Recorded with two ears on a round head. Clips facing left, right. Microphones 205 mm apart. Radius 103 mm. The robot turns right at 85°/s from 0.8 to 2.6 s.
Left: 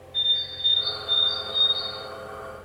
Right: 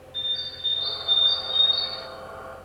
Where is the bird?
175° right, 5 m; by 2.1 s 65° right, 5 m.